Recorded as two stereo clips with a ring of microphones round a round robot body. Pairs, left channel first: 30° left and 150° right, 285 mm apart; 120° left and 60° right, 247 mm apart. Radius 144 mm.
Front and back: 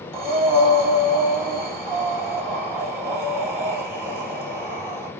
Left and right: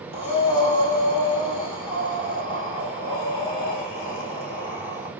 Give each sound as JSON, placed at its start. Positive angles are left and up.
{"t": 0.1, "sound": "breathing", "azimuth_deg": 125, "distance_m": 1.7}